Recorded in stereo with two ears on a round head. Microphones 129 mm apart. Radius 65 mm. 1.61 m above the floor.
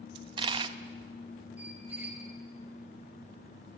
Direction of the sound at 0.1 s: 35° right (ahead or behind).